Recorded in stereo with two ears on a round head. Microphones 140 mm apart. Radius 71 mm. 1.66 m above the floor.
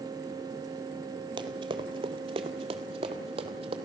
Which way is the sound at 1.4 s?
30° right (ahead or behind).